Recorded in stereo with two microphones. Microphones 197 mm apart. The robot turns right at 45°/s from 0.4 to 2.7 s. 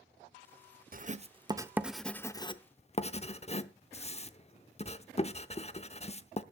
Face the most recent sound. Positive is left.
turn(degrees=35)  # may be behind; listen again after turning